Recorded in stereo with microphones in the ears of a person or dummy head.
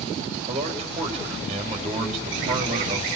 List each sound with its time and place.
0.5 s a man speaking: 35° right (ahead or behind), 4.5 m